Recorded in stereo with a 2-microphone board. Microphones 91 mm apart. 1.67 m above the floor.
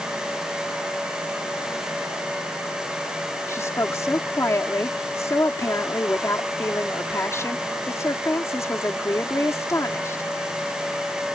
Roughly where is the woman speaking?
Left.